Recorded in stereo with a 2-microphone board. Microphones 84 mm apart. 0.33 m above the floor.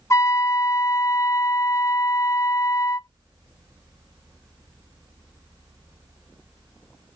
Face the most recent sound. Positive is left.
turn(degrees=35)  # may be behind; listen again after turning